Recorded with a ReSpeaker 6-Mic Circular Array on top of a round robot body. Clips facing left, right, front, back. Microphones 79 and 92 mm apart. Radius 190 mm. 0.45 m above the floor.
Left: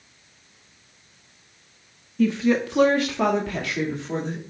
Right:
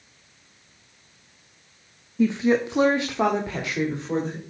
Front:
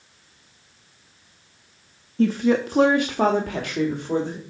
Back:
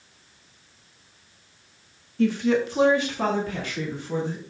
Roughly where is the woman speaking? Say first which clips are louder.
Even, front 2 dB; ahead right.